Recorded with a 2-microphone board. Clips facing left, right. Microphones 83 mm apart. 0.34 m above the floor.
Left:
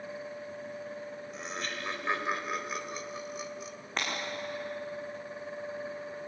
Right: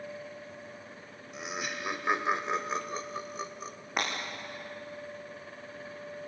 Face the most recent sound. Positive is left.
turn(degrees=-10)  # may be behind; listen again after turning